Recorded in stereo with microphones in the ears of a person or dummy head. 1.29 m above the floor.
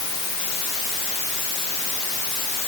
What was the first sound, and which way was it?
Only background noise.